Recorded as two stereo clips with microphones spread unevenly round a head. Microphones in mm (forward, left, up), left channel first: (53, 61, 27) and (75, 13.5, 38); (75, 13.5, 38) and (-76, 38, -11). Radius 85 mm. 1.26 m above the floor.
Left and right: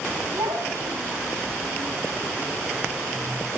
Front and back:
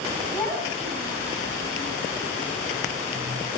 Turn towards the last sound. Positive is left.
turn(degrees=-95)